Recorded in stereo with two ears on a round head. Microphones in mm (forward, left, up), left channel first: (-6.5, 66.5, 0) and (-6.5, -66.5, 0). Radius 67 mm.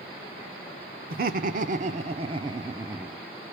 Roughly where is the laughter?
Right.